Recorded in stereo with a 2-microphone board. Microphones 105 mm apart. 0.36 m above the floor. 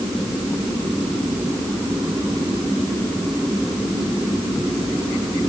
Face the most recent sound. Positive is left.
No sound to turn to.